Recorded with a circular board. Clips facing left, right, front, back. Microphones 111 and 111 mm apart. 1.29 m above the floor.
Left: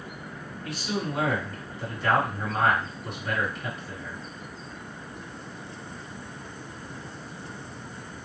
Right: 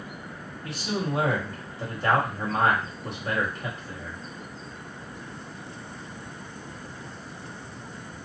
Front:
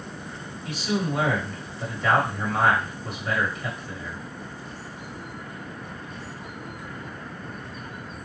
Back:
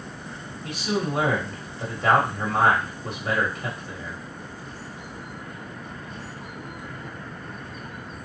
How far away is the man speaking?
About 1.5 m.